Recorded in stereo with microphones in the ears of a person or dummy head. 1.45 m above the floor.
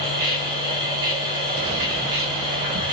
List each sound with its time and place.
0.0 s a machine running: 30° right (ahead or behind), 1.9 m